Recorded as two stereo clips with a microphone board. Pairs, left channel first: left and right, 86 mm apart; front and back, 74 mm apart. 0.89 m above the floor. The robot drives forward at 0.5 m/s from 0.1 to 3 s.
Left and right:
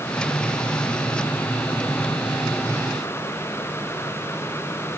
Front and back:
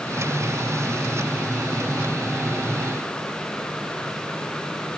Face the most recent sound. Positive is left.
No sound to turn to.